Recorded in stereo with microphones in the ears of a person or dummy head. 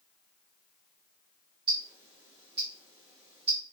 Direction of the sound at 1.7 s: 30° right (ahead or behind).